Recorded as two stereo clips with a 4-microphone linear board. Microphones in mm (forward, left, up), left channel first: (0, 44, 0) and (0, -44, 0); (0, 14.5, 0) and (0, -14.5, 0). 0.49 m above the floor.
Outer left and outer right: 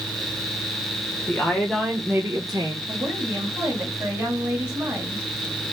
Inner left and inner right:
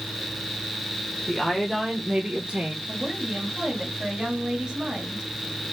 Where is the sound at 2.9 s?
30° right (ahead or behind), 3 m.